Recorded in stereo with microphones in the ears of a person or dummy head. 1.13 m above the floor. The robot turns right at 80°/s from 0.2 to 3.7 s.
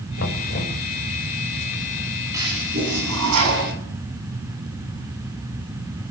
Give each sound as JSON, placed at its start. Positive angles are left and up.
{"t": 0.2, "sound": "knocking", "azimuth_deg": 110, "distance_m": 5.0}
{"t": 2.3, "sound": "a toilet flushing", "azimuth_deg": -165, "distance_m": 7.0}